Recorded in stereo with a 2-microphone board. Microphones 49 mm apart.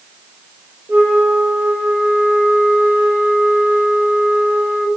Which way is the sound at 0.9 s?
35° right (ahead or behind).